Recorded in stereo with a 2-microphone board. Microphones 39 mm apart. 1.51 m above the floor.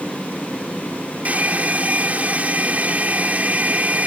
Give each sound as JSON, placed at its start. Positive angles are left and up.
{"t": 1.2, "sound": "a hair dryer", "side_deg": -40}